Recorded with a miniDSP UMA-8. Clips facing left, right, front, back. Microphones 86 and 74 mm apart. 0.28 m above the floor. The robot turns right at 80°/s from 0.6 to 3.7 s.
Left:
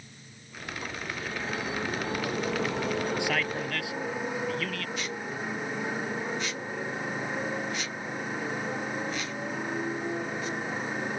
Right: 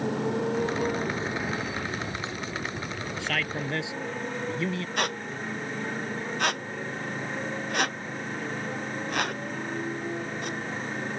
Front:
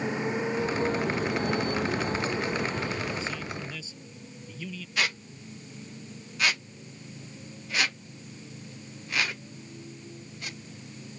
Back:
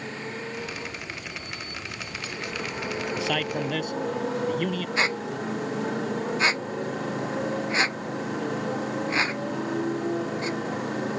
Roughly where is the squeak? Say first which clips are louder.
Right 4 dB, back 2 dB; behind right.